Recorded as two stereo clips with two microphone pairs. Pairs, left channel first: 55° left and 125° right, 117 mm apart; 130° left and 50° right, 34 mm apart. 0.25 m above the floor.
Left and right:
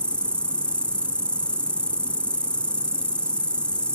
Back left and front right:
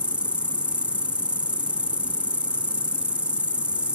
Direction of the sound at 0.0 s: 20° right.